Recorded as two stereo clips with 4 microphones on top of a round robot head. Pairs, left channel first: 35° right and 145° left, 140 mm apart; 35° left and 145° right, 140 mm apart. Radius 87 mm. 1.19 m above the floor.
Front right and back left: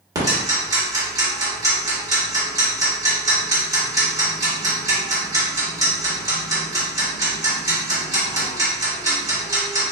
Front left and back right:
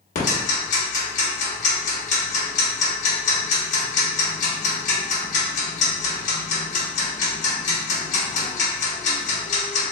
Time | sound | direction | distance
0.1 | ticking | 75° left | 1.4 m